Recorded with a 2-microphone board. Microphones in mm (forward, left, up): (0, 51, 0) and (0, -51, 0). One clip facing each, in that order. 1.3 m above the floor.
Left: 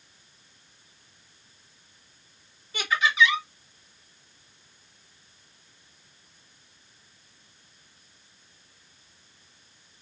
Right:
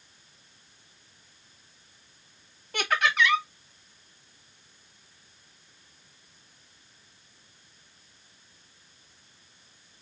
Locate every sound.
2.7 s laughter: 60° right (ahead or behind), 2 m